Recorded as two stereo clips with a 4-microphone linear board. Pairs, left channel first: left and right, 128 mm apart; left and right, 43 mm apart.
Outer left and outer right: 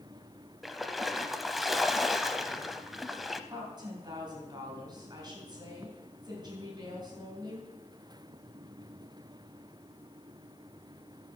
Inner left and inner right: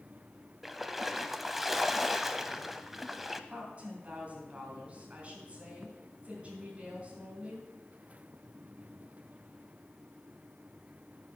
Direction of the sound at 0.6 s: Centre (ahead or behind).